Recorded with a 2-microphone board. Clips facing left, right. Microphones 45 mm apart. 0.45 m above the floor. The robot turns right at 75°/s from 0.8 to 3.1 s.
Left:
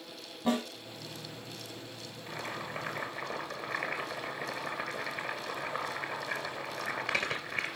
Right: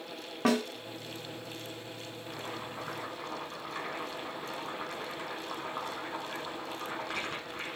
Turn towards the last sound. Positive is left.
turn(degrees=95)